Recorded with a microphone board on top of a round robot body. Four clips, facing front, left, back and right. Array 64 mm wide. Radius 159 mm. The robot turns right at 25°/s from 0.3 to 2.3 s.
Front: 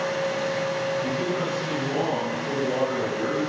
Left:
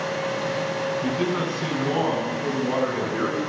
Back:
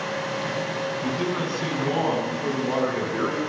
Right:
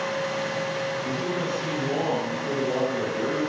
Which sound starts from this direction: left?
A man speaking, at 1.0 s.